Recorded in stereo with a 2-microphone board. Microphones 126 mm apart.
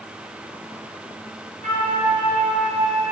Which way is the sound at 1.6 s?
80° right.